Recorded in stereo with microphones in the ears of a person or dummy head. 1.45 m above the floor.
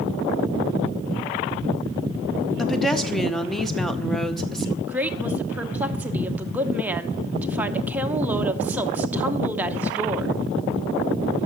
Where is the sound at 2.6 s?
Centre (ahead or behind), 0.9 m.